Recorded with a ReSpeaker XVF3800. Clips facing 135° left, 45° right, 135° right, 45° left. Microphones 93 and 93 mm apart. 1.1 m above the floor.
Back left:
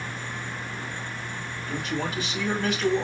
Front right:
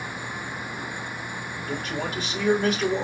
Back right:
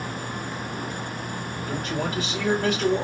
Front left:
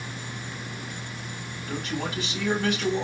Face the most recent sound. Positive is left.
turn(degrees=-90)